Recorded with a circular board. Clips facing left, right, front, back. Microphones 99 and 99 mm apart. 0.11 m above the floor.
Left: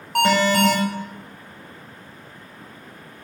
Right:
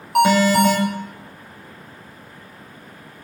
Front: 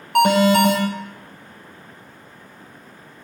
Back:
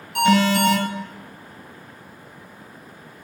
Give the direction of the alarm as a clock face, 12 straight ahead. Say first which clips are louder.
Right 3 dB, front 3 dB; 12 o'clock.